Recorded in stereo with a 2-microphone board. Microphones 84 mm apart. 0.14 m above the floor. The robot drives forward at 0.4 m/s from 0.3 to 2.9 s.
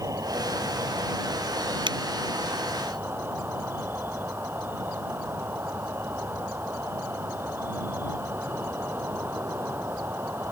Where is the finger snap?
65° right (ahead or behind); by 2.0 s 70° right (ahead or behind).